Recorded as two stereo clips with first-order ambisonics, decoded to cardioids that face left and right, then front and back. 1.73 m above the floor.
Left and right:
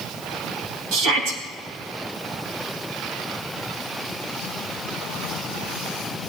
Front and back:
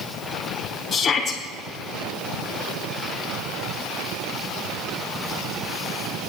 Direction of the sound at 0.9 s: 75° right.